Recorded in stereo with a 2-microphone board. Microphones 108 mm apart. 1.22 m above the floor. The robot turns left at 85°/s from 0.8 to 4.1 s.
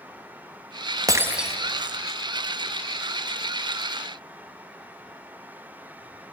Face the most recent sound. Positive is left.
turn(degrees=-40)